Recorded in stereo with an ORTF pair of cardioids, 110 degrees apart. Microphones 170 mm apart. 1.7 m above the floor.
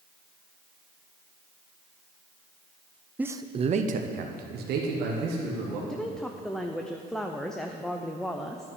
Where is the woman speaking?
5° left, 0.6 m.